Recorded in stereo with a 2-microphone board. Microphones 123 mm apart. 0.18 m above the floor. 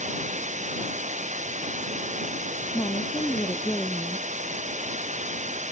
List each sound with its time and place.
0.0 s running water: 75° right (ahead or behind)
2.7 s a woman speaking: 25° left (ahead or behind)